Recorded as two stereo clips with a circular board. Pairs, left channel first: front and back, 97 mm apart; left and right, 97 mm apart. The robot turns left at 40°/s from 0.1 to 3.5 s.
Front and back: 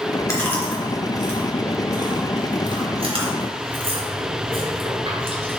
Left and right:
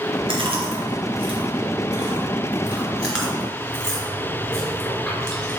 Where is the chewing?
60° right, 3 m; by 5.6 s 175° left, 3 m.